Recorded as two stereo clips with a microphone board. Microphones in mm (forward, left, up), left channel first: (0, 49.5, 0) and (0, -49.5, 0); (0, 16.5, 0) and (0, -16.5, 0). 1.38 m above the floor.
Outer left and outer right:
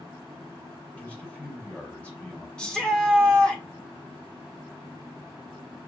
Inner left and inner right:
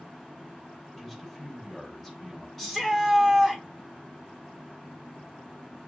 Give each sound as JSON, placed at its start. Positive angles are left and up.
{"t": 1.0, "sound": "a man speaking", "side_deg": 15, "distance_m": 2.5}
{"t": 2.6, "sound": "a shout", "side_deg": 10, "distance_m": 1.5}